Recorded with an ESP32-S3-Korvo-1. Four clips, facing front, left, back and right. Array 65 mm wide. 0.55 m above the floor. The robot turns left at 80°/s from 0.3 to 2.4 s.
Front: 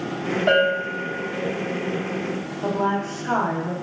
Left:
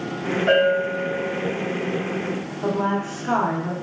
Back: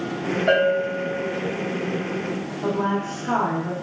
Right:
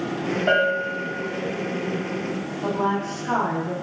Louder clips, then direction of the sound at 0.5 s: Left 3 dB, even; 5° left.